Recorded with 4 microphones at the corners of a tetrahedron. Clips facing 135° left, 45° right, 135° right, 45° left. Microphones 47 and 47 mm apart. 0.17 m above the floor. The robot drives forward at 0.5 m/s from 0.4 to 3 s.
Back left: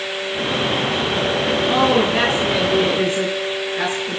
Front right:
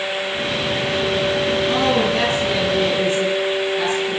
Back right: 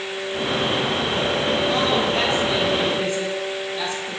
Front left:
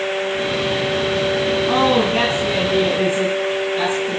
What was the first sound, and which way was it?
A woman speaking, 80° left.